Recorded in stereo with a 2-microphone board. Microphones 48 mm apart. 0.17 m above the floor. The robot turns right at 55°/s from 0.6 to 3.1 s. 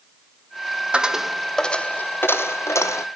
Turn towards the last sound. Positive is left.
turn(degrees=95)